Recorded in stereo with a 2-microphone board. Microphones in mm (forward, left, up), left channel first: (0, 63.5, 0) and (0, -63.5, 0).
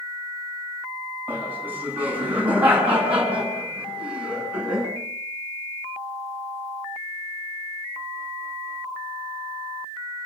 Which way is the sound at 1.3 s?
15° right (ahead or behind).